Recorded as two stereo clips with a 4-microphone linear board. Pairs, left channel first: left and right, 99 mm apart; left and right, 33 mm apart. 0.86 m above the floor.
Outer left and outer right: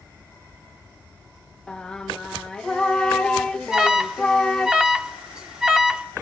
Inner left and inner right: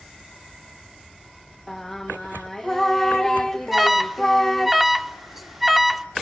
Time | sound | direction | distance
1.7 | singing | 10° left (ahead or behind) | 1.5 m
3.7 | an alarm | 5° right (ahead or behind) | 1.8 m